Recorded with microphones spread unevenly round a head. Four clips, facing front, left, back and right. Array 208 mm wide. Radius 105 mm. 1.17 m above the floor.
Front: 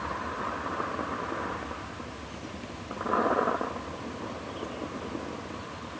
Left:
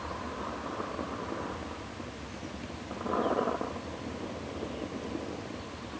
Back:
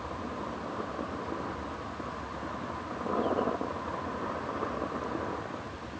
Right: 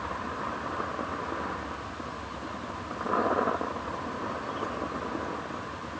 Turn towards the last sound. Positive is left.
No sound to turn to.